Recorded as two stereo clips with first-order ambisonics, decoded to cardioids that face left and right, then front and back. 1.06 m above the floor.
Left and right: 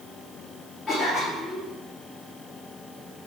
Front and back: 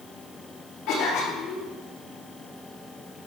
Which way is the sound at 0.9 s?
10° left.